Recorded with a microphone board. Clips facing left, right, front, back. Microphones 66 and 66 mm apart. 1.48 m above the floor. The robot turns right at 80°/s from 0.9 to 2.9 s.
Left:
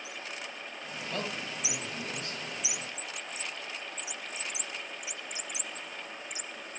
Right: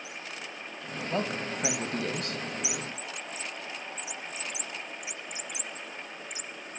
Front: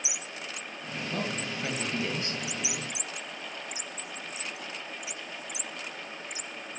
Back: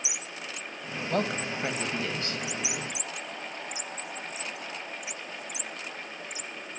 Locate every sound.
1.1 s a woman speaking: 160° right, 2 m; by 2.5 s 55° right, 2 m